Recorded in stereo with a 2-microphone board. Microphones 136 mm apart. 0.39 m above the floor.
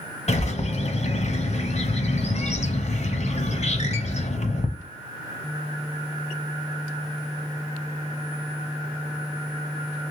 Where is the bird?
50° left (ahead or behind), 0.7 m.